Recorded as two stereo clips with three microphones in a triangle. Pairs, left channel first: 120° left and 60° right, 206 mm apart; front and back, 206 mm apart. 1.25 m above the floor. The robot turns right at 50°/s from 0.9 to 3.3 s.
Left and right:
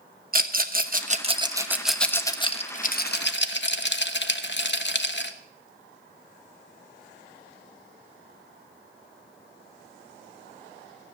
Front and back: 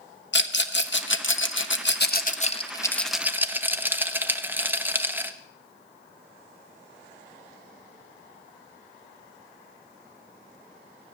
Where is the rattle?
20° right, 0.9 m; by 5.3 s 100° left, 0.9 m.